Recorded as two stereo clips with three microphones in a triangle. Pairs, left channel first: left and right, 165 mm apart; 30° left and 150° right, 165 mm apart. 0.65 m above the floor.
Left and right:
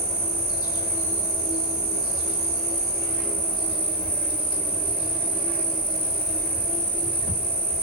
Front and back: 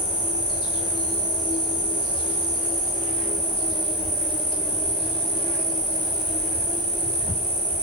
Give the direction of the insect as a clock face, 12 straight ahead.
9 o'clock.